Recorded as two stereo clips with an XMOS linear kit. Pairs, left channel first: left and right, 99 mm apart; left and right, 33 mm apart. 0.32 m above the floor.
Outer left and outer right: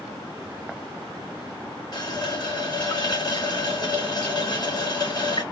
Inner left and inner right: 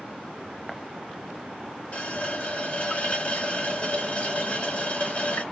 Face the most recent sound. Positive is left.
turn(degrees=45)  # may be behind; listen again after turning